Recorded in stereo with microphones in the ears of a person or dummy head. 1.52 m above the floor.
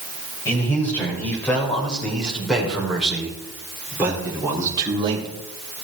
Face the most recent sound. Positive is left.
turn(degrees=-25)  # may be behind; listen again after turning